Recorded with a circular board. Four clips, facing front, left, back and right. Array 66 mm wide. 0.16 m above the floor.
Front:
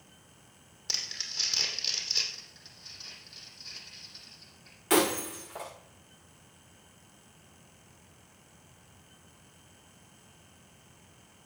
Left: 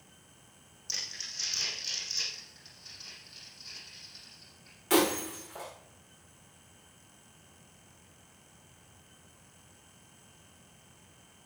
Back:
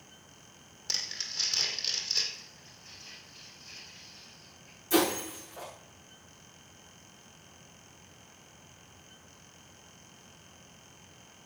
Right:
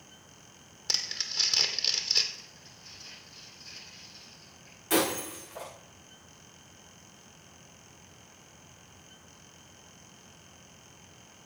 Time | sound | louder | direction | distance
0.9 | crumpling | right 6 dB, even | 85° right | 2 m
2.3 | crumpling | right 2 dB, back 1 dB | 15° left | 7 m
4.9 | breaking glass | left 1 dB, front 1 dB | 15° left | 7 m